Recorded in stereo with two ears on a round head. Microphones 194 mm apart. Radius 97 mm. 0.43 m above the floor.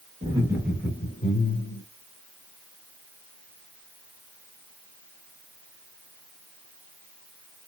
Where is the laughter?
25° right (ahead or behind), 1.0 m; by 1.8 s 45° left (ahead or behind), 1.3 m.